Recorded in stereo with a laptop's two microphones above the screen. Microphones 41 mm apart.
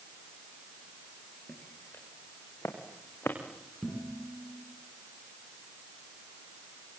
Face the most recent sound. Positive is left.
turn(degrees=0)  # may be behind; listen again after turning